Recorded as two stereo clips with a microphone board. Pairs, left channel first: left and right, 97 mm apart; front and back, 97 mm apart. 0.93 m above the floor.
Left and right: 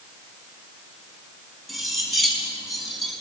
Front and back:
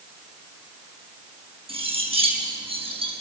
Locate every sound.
1.7 s cutlery clinking: straight behind, 4.5 m